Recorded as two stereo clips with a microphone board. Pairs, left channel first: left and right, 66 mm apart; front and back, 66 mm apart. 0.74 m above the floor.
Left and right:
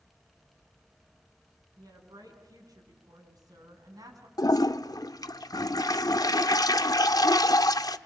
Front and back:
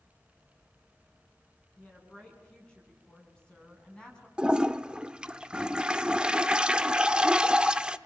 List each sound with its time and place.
1.8 s a woman speaking: 75° right, 8.5 m
4.4 s a toilet flushing: 105° left, 0.7 m